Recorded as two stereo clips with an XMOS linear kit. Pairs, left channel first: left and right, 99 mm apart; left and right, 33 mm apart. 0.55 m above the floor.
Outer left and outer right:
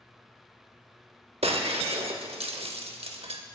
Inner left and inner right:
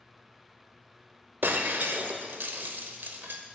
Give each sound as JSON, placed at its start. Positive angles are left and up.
{"t": 1.4, "sound": "breaking glass", "side_deg": -85, "distance_m": 0.7}